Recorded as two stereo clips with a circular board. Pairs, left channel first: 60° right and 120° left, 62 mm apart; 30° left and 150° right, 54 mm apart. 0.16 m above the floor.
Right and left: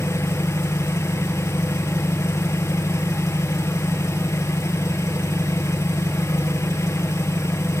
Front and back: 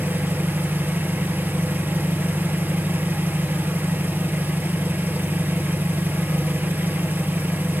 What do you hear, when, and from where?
0.0 s an engine running: 95° right, 1.7 m